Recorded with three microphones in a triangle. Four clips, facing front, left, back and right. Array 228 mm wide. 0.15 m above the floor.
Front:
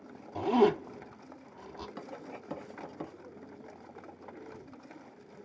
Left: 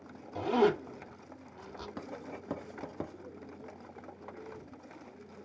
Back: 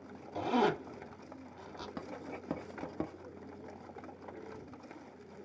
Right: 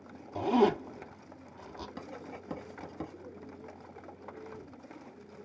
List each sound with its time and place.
0.3 s a zipper: 35° right, 0.7 m
2.0 s writing: 155° left, 1.0 m